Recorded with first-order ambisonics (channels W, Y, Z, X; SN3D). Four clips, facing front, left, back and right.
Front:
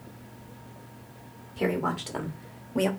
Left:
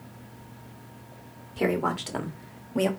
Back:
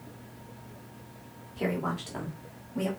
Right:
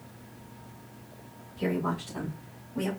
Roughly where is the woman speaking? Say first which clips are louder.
Left 4 dB, front 3 dB; left.